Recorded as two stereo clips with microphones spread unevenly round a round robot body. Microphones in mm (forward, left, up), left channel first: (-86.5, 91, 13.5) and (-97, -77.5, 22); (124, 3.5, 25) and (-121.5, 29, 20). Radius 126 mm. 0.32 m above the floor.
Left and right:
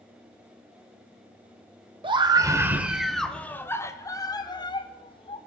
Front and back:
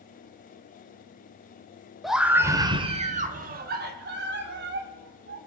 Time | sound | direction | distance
2.0 | a scream | 100° right | 0.9 m